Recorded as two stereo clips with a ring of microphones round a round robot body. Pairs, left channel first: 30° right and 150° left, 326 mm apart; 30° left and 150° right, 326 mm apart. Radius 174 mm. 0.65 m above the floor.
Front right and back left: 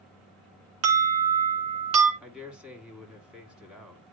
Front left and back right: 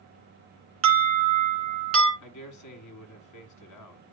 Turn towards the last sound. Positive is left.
turn(degrees=65)